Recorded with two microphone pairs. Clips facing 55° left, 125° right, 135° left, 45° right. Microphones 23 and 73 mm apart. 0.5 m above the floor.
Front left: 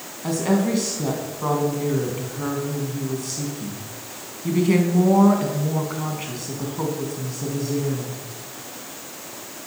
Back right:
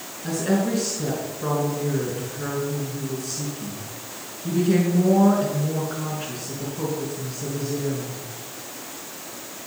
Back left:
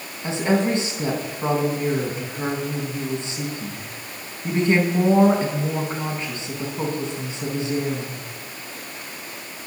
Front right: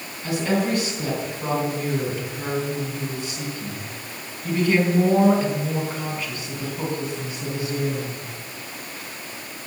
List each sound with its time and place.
0.2 s a woman speaking: 70° left, 4 m